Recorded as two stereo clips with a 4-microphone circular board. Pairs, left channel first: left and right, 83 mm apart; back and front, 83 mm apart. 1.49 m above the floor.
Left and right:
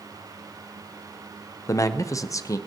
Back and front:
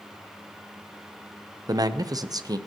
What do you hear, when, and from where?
1.7 s a man speaking: 40° left, 0.7 m